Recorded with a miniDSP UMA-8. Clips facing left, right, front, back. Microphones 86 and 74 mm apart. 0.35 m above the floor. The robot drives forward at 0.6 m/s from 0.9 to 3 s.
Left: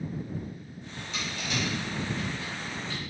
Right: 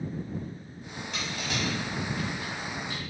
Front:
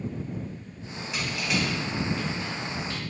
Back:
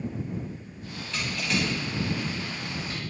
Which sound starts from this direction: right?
Crushing, at 1.1 s.